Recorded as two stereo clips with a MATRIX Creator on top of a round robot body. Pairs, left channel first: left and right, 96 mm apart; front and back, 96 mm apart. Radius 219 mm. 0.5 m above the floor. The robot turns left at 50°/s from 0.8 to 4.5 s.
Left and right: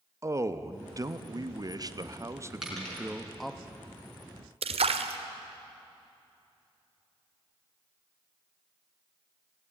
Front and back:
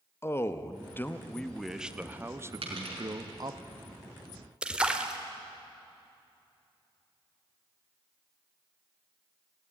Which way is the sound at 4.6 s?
100° right.